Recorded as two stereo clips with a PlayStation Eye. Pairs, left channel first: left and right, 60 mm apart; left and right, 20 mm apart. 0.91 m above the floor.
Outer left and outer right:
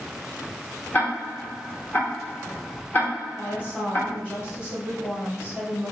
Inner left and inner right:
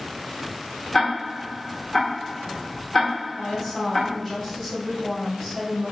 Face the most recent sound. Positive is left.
turn(degrees=40)  # may be behind; listen again after turning